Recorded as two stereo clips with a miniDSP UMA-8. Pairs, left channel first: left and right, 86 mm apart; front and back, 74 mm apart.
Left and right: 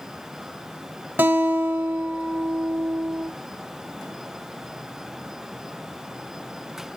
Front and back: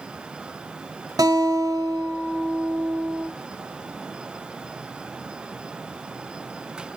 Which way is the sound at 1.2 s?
155° right.